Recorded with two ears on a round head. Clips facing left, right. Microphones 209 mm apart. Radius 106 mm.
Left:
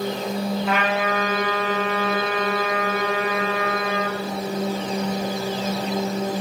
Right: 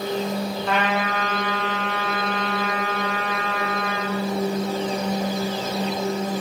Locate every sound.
0.7 s a trumpet: 5° left (ahead or behind), 1.2 m